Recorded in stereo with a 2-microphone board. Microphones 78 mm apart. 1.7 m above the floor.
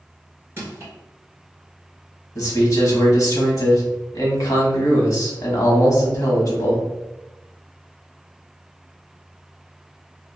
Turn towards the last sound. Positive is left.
turn(degrees=50)  # may be behind; listen again after turning